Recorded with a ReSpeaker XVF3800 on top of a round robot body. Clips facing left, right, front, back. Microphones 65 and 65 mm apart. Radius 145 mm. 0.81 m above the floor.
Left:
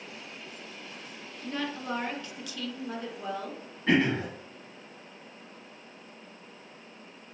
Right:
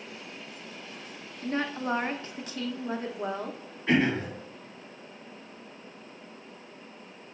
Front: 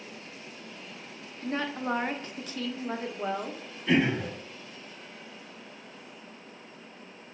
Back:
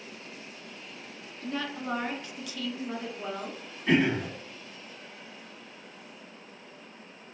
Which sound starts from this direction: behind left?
Throat clearing, at 3.9 s.